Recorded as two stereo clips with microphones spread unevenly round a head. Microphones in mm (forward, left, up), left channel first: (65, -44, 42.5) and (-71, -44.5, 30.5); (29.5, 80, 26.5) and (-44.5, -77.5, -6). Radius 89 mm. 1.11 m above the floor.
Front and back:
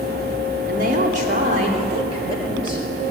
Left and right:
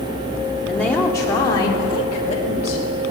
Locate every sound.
0.7 s a woman speaking: 150° left, 3.5 m; by 2.9 s 115° left, 5.5 m